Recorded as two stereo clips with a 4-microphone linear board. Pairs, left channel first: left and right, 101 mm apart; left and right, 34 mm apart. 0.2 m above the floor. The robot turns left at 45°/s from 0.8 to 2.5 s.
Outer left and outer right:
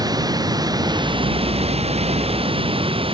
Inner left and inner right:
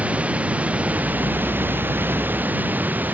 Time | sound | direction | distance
0.0 | running water | 40° right | ?